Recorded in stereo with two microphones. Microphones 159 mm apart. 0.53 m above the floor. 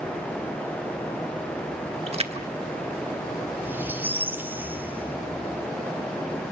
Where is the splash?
40° right (ahead or behind), 1.4 m.